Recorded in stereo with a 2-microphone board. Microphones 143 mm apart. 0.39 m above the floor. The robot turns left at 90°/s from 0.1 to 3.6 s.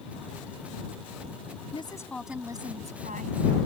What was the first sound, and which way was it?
A woman speaking, 45° left.